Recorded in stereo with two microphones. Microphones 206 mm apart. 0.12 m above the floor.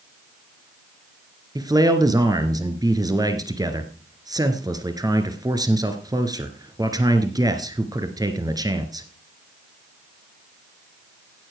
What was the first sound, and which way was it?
A man speaking, 20° right (ahead or behind).